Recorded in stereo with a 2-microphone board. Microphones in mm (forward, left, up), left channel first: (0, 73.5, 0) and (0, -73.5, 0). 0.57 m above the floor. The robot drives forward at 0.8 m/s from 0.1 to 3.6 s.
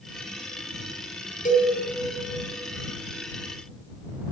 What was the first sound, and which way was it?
A cowbell, 65° left (ahead or behind).